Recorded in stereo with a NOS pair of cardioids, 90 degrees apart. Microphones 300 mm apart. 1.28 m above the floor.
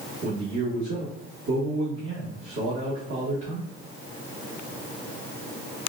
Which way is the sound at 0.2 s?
45° right.